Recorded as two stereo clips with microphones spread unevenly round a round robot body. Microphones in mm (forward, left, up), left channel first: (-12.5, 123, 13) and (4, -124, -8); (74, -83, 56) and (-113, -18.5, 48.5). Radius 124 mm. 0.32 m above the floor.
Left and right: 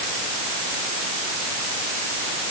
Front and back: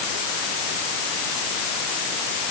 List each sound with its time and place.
Only background noise.